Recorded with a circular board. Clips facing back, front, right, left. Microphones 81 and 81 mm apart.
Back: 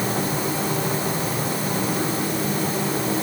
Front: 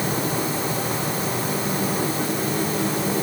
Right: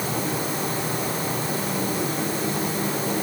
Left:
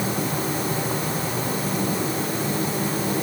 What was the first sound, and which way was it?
Only background noise.